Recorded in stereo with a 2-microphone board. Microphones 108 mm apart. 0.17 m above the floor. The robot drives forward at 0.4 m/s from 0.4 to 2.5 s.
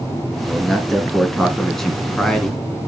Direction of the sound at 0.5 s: Centre (ahead or behind).